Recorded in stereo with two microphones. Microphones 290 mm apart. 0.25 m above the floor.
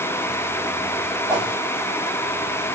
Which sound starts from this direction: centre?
A whoosh, at 1.3 s.